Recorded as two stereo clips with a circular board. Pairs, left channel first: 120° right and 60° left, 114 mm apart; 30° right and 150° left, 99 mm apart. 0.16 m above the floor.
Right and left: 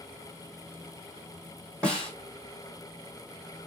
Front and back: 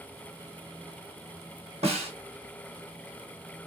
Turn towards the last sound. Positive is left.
turn(degrees=160)